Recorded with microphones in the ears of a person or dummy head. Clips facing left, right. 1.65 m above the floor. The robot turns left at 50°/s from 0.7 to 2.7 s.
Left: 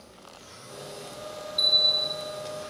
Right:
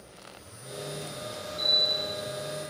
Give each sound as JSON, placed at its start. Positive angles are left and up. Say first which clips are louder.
{"t": 1.6, "sound": "a bell", "louder": "right 2 dB", "side_deg": 50, "distance_m": 1.1}